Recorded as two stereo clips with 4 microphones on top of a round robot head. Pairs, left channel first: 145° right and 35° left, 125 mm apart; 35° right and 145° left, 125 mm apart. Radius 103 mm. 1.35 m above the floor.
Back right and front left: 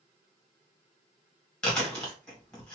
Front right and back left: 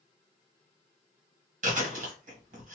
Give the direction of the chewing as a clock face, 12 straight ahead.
8 o'clock.